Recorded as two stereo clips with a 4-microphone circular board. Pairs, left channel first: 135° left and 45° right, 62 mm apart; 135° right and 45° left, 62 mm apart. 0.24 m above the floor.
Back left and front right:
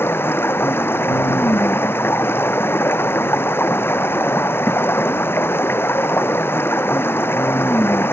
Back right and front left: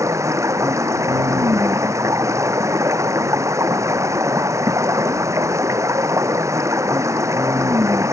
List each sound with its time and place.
0.0 s running water: 80° left